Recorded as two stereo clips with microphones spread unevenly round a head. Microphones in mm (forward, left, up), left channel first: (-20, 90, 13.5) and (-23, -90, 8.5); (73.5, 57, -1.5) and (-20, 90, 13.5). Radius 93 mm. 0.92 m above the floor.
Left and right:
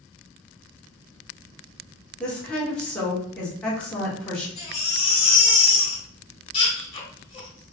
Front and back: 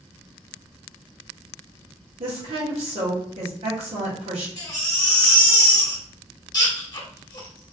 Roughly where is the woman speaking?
Behind.